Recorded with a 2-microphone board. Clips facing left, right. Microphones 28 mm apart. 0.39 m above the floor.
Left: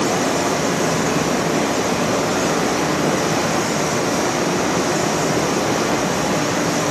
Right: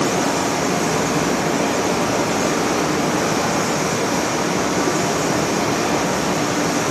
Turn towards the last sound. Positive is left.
turn(degrees=75)  # may be behind; listen again after turning